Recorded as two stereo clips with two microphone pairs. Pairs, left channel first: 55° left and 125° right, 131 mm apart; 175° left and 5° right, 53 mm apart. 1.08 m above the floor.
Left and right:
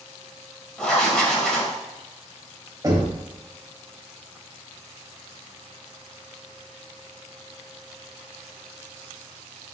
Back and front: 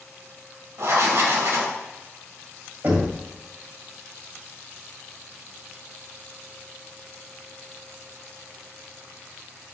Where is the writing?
25° right, 2 m.